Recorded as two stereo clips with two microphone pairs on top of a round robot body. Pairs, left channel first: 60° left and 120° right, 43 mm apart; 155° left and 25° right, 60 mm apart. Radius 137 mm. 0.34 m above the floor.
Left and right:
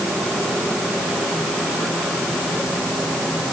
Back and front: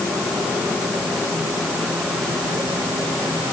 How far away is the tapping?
I don't hear tapping.